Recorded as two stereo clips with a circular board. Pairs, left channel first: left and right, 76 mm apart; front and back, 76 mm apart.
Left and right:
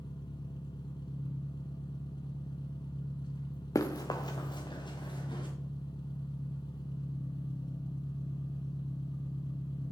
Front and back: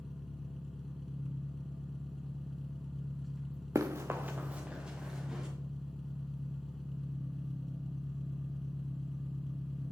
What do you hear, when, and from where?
0.0 s an engine running: 90° left, 1.6 m
3.8 s running footsteps: 130° left, 1.5 m; by 5.5 s 95° left, 3.5 m